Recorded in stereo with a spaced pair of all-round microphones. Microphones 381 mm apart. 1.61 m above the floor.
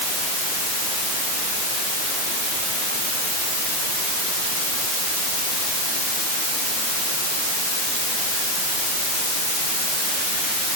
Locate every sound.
Only background noise.